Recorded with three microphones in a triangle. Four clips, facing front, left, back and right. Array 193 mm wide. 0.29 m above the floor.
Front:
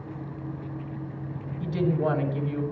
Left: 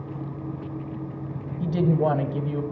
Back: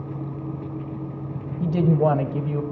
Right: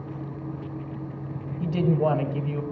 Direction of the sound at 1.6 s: 170° left.